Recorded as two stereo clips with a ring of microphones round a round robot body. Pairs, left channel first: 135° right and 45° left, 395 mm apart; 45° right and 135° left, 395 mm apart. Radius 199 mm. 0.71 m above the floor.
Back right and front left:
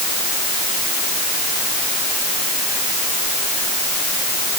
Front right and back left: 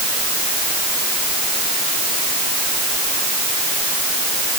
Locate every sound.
Only background noise.